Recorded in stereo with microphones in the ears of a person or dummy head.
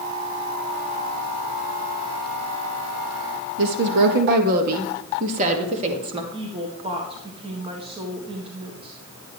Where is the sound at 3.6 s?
60° right (ahead or behind), 1.4 m; by 6.2 s 25° right (ahead or behind), 2.5 m.